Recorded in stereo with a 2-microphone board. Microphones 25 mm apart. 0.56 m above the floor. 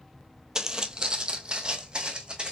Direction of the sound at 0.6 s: 25° right (ahead or behind).